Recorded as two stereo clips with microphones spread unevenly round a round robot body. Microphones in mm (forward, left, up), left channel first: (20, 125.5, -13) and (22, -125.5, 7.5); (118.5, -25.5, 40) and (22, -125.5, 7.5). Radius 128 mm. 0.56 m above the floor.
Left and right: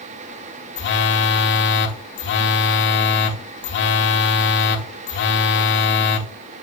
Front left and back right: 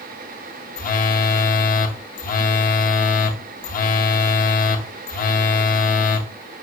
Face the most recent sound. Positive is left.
turn(degrees=65)